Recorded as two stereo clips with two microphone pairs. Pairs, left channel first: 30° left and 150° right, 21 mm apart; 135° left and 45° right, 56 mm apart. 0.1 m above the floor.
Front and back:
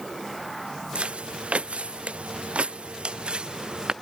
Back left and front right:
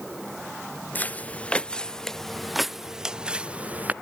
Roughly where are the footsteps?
Behind.